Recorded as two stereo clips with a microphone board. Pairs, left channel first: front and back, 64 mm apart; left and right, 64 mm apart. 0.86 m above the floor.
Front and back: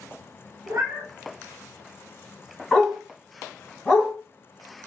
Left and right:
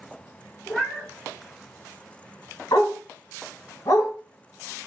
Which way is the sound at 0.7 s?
165° left.